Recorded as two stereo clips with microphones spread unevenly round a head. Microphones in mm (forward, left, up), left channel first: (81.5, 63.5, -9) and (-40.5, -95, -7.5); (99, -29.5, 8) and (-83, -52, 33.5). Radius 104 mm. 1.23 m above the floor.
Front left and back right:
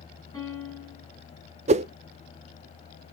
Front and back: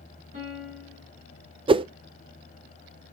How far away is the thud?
No thud in this recording.